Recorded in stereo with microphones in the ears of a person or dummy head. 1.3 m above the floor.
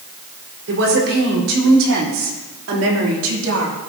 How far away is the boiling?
No boiling in this recording.